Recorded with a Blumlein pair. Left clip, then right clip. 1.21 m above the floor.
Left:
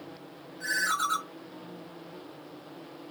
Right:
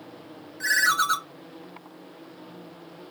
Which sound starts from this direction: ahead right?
A ringtone, at 0.6 s.